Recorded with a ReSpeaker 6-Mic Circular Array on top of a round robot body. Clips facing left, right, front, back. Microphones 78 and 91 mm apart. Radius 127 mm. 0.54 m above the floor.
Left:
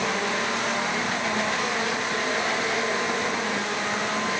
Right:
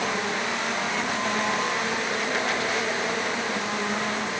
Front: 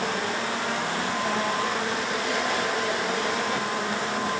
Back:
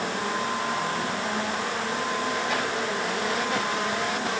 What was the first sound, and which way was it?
Only background noise.